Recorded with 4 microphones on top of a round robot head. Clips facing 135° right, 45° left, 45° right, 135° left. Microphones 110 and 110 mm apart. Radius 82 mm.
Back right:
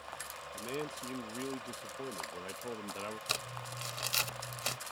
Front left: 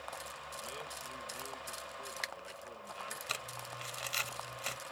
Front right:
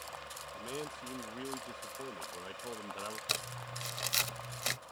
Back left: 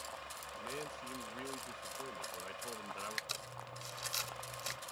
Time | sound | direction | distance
0.5 | a man speaking | 115° right | ?
3.3 | crumpling | 75° right | ?